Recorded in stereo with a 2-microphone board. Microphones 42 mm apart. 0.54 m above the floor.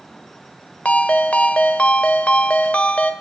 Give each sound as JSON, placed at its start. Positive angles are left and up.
{"t": 0.8, "sound": "a ringtone", "side_deg": 30, "distance_m": 1.0}